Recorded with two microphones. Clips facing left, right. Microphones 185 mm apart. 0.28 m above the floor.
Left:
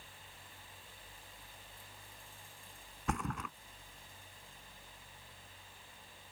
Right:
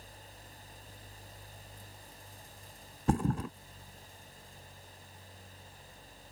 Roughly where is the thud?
Right.